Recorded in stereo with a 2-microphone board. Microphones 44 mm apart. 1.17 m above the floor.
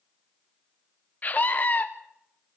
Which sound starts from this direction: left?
A scream, at 1.2 s.